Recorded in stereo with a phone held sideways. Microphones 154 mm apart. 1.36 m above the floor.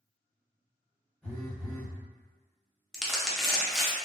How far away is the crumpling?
About 0.6 m.